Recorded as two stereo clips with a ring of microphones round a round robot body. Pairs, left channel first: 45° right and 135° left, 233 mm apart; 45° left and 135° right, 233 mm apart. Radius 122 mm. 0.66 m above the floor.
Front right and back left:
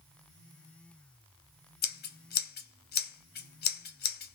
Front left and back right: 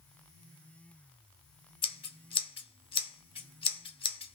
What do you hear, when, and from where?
1.8 s scissors: 15° right, 1.1 m